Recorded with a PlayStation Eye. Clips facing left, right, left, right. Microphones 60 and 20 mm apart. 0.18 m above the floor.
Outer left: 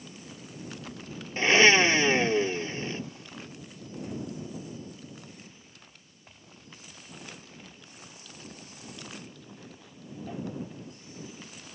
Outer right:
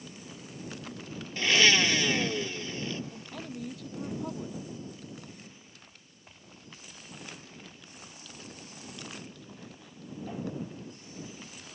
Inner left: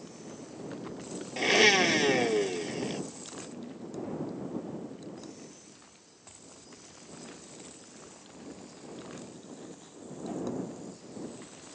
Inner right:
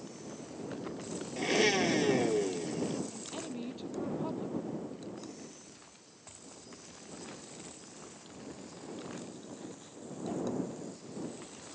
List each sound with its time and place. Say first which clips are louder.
1.4 s a blender: outer left 4 dB, inner left 6 dB; 30° left (ahead or behind)
3.1 s a woman speaking: outer right 4 dB, inner right 2 dB; 75° right (ahead or behind)